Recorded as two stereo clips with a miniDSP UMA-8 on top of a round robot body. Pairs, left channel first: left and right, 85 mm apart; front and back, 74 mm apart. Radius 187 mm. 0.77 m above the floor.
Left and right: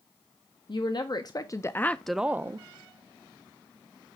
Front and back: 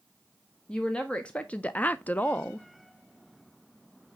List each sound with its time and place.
0.7 s a woman speaking: 75° left, 1.0 m; by 2.7 s 65° right, 0.7 m